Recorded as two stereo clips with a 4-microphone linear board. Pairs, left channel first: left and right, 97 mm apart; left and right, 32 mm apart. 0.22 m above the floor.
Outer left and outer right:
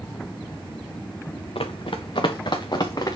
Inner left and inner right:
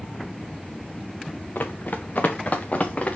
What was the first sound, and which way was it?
Running footsteps, 65° left (ahead or behind).